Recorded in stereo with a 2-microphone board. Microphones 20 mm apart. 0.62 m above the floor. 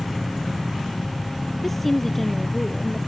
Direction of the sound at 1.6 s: 10° left (ahead or behind).